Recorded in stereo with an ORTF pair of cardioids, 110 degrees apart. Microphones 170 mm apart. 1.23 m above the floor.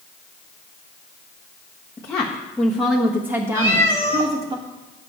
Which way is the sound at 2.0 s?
20° left.